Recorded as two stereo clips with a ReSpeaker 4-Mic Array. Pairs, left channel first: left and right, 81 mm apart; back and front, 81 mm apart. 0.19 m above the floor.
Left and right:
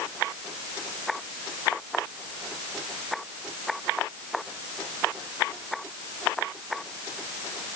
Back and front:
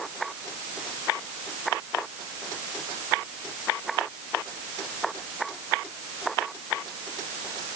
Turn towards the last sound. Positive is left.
No sound to turn to.